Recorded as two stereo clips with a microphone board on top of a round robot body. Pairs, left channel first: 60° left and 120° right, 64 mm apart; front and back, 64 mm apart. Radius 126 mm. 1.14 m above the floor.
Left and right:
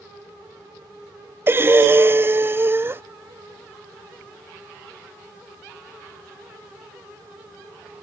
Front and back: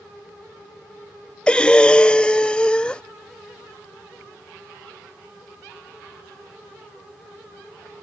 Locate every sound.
1.5 s breathing: 75° right